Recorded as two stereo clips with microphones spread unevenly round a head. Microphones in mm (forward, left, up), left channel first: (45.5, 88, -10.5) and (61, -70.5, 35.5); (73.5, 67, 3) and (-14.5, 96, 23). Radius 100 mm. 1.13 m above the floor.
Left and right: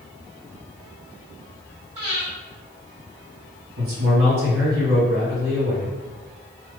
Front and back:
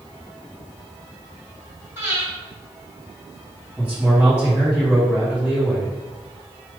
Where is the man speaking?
110° right, 1.6 m.